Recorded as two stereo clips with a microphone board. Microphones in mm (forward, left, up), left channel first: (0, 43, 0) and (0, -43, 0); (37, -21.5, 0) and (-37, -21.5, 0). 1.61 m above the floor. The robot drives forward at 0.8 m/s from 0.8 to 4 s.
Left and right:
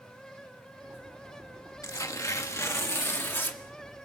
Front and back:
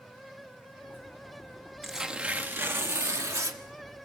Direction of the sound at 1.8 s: 90° left.